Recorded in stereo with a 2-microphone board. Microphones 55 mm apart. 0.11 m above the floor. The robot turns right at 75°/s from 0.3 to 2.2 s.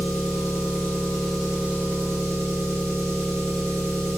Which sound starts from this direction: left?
An engine running, at 0.0 s.